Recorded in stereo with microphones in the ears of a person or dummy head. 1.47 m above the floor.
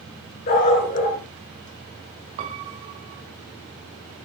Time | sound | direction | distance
0.5 | a dog barking | 50° left (ahead or behind) | 5.5 m
2.4 | a piano | 20° right (ahead or behind) | 1.2 m